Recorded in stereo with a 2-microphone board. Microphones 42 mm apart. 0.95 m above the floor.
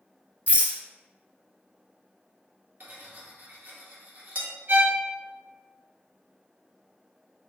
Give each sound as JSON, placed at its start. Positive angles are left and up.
{"t": 0.5, "sound": "a rattle", "side_deg": -40, "distance_m": 0.6}
{"t": 2.8, "sound": "cutlery clinking", "side_deg": -50, "distance_m": 0.6}
{"t": 4.7, "sound": "a violin", "side_deg": -40, "distance_m": 0.7}